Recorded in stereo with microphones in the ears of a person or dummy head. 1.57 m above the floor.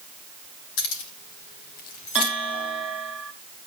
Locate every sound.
0.8 s keys jangling: 80° left, 2.5 m; by 2.3 s 20° left (ahead or behind), 1.1 m
2.1 s a bell: 5° right (ahead or behind), 1.2 m